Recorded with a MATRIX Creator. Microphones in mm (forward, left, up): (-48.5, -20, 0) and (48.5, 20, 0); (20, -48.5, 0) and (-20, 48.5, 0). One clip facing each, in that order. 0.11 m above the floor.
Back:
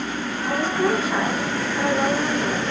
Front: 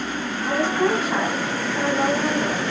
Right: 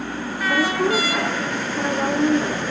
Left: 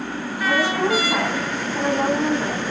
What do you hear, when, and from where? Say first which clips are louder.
0.5 s a woman speaking: front 1 dB, even; 100° left, 5 m